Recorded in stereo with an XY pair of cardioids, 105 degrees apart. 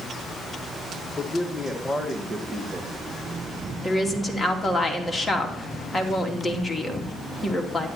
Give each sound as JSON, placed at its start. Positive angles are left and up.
{"t": 1.2, "sound": "a man speaking", "azimuth_deg": 20, "distance_m": 2.0}
{"t": 3.8, "sound": "a woman speaking", "azimuth_deg": 10, "distance_m": 3.0}